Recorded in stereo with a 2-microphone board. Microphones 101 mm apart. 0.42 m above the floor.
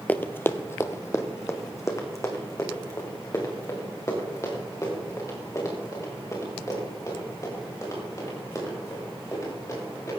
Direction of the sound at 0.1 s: 15° left (ahead or behind).